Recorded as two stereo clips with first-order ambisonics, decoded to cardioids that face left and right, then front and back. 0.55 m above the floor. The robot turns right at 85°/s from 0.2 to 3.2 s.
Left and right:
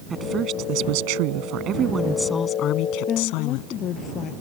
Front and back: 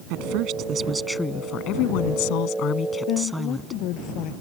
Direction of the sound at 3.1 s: 25° left.